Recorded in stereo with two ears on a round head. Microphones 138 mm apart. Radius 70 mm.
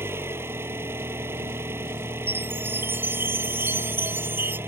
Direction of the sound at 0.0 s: 15° right (ahead or behind).